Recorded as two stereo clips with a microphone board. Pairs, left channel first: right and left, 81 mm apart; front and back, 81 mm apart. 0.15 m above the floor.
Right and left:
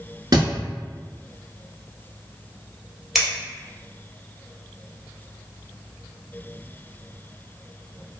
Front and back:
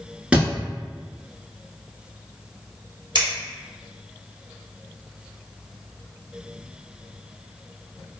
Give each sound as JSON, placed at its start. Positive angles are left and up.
{"t": 0.3, "sound": "a thud", "azimuth_deg": 105, "distance_m": 0.7}
{"t": 3.1, "sound": "scissors", "azimuth_deg": 175, "distance_m": 1.3}